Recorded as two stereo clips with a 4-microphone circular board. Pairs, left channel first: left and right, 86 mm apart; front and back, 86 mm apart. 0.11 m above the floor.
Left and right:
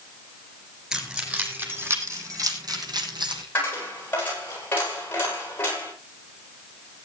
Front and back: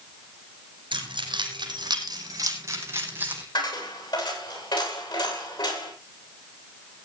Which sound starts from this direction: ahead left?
A dropped coin, at 3.5 s.